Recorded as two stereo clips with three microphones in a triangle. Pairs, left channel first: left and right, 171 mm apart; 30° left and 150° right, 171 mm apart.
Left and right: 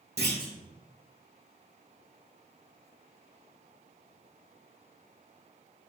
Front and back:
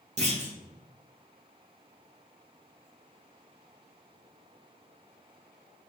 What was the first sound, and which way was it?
A clunk, 100° right.